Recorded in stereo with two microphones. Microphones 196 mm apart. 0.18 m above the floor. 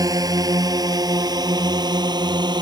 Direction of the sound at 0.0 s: 20° right (ahead or behind).